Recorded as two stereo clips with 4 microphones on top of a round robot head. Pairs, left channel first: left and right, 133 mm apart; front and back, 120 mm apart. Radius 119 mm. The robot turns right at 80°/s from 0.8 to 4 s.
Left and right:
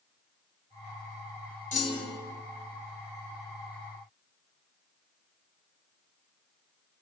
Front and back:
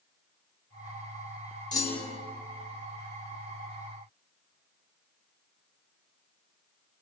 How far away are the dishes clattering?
No dishes clattering in this recording.